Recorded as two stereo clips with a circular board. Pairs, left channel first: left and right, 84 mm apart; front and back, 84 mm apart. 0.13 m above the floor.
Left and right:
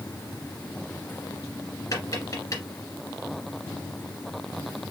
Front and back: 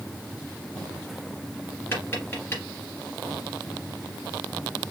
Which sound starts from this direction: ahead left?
Tapping, at 1.9 s.